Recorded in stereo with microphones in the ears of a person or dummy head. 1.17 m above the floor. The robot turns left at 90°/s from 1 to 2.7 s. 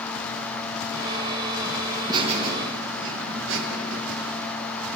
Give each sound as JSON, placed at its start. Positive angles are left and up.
{"t": 1.9, "sound": "laughter", "azimuth_deg": 5, "distance_m": 1.3}